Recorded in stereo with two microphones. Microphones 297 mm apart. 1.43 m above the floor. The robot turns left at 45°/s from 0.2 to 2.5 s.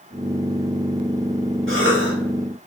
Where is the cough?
40° right (ahead or behind), 1.5 m; by 2.1 s 60° right (ahead or behind), 1.5 m.